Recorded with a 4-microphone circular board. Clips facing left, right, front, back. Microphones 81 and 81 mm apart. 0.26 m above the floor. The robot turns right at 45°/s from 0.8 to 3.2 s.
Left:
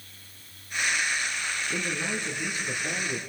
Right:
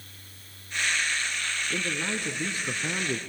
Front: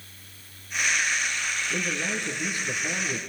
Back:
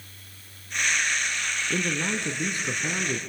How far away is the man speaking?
About 2.5 m.